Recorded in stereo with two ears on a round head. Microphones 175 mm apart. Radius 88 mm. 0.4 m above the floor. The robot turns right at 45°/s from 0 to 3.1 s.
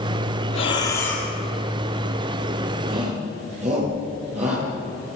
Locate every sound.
0.5 s breathing: 145° left, 5 m; by 1.3 s straight behind, 5 m
2.9 s a shout: 50° right (ahead or behind), 9.5 m; by 4.7 s 35° right (ahead or behind), 9.5 m